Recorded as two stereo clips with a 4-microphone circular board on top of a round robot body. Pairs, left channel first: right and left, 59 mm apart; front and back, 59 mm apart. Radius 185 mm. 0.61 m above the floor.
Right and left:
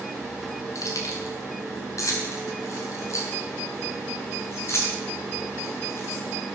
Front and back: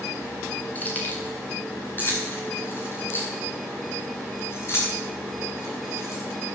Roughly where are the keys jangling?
Ahead right.